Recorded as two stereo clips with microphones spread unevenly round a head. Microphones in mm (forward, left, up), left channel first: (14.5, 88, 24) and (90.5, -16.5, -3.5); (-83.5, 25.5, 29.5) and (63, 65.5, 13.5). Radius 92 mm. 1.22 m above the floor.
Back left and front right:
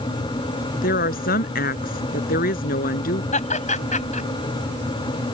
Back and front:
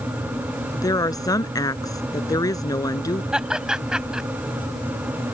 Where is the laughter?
100° left.